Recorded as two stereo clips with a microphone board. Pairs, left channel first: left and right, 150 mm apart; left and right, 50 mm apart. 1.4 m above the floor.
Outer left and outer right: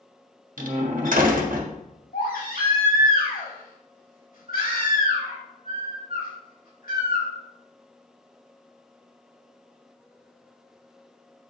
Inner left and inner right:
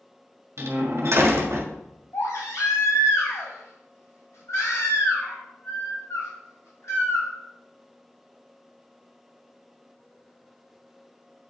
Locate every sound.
0.6 s a door slam: 65° right (ahead or behind), 1.4 m
2.1 s a baby crying: 75° left (ahead or behind), 4 m